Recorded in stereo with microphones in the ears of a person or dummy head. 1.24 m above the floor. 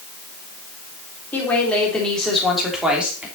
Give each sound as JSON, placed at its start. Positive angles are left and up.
{"t": 1.3, "sound": "a woman speaking", "side_deg": 10, "distance_m": 3.5}